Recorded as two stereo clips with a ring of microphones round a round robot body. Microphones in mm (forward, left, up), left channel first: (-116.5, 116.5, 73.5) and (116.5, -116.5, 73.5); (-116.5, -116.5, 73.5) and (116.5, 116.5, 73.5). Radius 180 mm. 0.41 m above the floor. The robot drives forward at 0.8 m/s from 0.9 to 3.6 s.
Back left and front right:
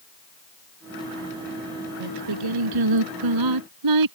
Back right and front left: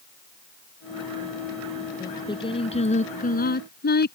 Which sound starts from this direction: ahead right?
Singing, at 2.0 s.